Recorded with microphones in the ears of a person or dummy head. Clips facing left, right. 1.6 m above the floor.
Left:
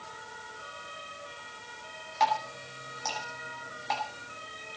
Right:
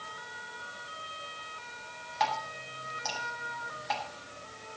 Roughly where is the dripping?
Centre.